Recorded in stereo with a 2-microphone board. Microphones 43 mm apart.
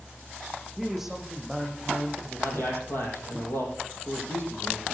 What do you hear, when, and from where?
0.8 s a man speaking: 5° right (ahead or behind), 8 m
2.4 s a man speaking: 60° left (ahead or behind), 5.5 m